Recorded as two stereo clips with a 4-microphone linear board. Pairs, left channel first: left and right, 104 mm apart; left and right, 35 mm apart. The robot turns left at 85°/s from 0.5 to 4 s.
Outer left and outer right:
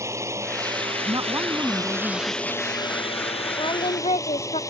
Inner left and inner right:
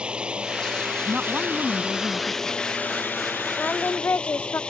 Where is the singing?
130° left; by 4.6 s 95° left.